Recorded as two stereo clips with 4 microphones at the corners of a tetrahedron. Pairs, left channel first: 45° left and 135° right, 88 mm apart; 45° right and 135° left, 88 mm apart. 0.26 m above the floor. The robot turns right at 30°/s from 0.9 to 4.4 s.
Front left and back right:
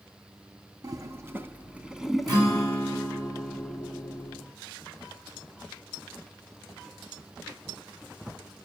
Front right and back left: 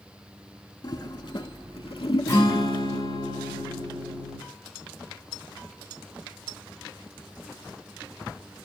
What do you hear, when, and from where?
0.8 s a toilet flushing: 85° right, 0.5 m; by 3.0 s 20° right, 0.5 m
2.3 s a guitar: 100° right, 4.5 m; by 4.4 s 35° right, 4.5 m